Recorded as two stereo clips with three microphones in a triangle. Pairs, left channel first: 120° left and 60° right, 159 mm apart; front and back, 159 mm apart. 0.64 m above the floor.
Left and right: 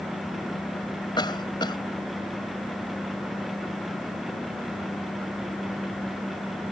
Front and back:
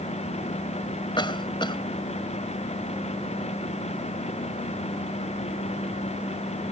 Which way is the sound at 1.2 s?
60° left.